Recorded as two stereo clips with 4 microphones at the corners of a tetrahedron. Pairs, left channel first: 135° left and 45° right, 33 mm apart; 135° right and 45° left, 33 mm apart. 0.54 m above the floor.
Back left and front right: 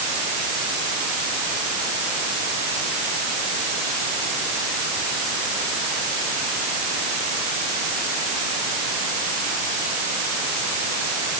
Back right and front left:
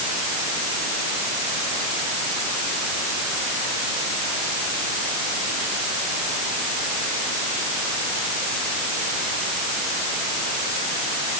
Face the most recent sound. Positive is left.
No sound to turn to.